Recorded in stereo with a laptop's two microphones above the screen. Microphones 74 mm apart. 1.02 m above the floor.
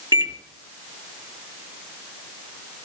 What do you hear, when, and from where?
0.1 s a microwave: 70° right (ahead or behind), 1.2 m